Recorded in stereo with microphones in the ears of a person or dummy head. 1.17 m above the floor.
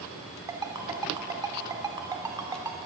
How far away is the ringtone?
About 2.5 m.